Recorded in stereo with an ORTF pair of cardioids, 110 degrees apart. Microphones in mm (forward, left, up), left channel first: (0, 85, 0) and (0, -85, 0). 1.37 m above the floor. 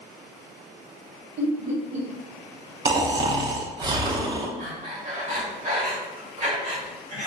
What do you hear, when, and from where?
1.4 s laughter: 45° right, 1.2 m
2.9 s snoring: 25° right, 0.5 m
4.6 s breathing: 55° right, 1.7 m